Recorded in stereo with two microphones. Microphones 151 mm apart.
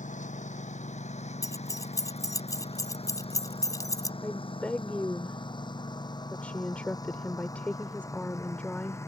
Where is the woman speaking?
10° left (ahead or behind).